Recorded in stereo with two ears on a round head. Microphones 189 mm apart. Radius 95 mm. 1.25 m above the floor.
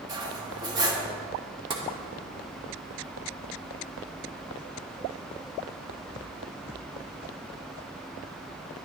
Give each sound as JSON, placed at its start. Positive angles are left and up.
{"t": 0.1, "sound": "cutlery clinking", "side_deg": -20, "distance_m": 1.1}
{"t": 1.7, "sound": "tapping", "side_deg": -25, "distance_m": 1.2}